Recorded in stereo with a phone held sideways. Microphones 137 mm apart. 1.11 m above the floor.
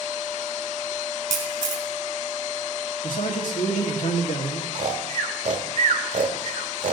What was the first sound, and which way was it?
A camera shutter, 75° right (ahead or behind).